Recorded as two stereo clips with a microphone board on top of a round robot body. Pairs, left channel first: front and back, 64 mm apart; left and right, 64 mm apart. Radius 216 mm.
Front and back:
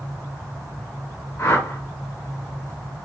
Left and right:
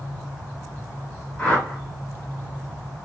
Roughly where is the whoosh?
Ahead.